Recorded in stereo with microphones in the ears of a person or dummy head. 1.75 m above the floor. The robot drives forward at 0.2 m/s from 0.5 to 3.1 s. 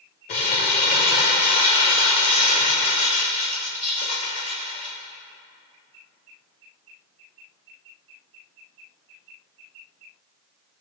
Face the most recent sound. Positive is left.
turn(degrees=35)  # may be behind; listen again after turning